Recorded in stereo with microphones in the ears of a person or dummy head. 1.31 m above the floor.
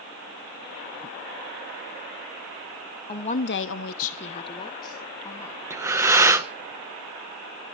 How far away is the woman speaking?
About 1.1 m.